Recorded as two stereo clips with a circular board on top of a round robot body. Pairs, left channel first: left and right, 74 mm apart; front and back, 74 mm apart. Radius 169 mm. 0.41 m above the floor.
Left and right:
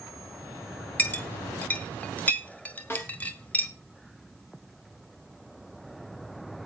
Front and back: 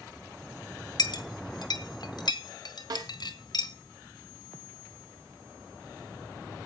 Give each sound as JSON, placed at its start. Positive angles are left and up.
{"t": 1.0, "sound": "a clink", "azimuth_deg": 20, "distance_m": 1.7}
{"t": 2.9, "sound": "a snare drum", "azimuth_deg": 150, "distance_m": 3.0}